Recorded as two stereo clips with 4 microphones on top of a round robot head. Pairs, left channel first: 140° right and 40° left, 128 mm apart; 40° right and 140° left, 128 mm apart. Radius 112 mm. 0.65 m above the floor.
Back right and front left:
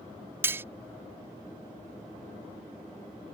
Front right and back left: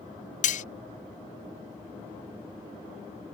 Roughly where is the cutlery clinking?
Ahead right.